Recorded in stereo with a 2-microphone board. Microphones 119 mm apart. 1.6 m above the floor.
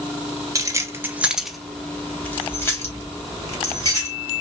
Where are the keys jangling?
30° right (ahead or behind), 0.8 m; by 4.2 s 25° left (ahead or behind), 2.5 m.